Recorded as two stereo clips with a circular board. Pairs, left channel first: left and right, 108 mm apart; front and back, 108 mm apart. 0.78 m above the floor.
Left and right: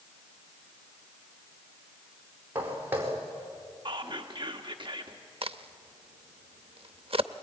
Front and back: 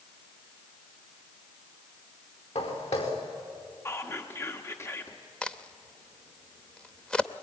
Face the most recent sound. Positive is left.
turn(degrees=-80)